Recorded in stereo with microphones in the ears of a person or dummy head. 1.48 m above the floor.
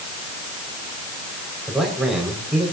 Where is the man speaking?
Centre (ahead or behind), 5.5 m.